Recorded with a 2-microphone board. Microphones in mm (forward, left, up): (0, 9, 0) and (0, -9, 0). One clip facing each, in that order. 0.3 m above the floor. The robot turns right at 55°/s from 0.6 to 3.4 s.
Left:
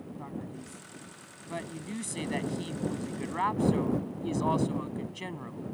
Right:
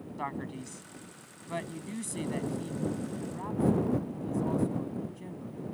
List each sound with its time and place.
0.2 s a man speaking: 55° right; by 5.6 s 100° left